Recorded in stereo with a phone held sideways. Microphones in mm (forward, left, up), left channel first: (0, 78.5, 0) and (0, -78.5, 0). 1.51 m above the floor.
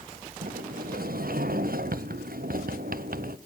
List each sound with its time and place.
0.4 s a sliding door: 70° right (ahead or behind), 0.6 m